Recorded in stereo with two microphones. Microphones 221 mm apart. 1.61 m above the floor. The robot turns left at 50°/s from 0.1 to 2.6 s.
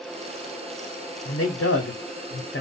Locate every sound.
1.2 s a man speaking: 125° left, 0.5 m; by 2.6 s 55° left, 0.5 m